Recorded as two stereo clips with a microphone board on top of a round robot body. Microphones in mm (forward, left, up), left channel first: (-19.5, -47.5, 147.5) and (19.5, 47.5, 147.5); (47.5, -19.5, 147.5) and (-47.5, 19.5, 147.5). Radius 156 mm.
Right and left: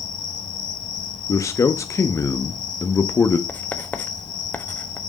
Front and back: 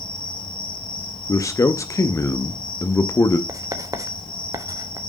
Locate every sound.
0.0 s an insect: 60° right, 3.5 m
1.3 s a man speaking: 65° right, 0.8 m
3.5 s writing: 175° right, 1.3 m